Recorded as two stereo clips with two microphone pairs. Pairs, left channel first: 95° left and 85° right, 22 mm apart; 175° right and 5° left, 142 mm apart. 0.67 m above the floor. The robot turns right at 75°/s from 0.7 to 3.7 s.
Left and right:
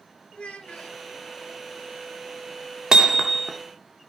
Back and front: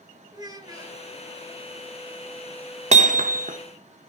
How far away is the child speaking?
About 2.5 m.